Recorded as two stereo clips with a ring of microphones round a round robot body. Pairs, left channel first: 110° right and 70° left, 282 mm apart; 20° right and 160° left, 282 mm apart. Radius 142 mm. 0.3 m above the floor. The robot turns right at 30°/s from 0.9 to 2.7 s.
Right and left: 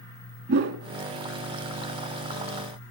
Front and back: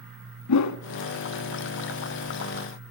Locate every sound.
0.5 s a whoosh: 10° left, 0.6 m